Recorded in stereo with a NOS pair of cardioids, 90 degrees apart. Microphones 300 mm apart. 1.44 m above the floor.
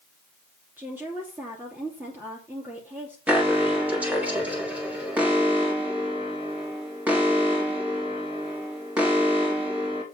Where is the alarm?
5° right, 3 m.